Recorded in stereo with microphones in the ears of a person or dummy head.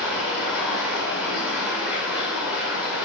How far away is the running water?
About 2 m.